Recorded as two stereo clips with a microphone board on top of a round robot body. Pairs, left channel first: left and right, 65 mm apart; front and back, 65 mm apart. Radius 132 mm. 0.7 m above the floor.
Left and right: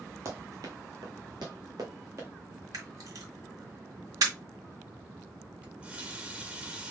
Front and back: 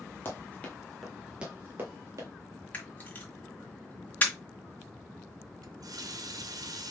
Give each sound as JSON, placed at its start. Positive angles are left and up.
{"t": 0.2, "sound": "running footsteps", "azimuth_deg": -55, "distance_m": 1.1}
{"t": 2.7, "sound": "a camera shutter", "azimuth_deg": -65, "distance_m": 1.9}
{"t": 5.6, "sound": "a running tap", "azimuth_deg": -160, "distance_m": 1.1}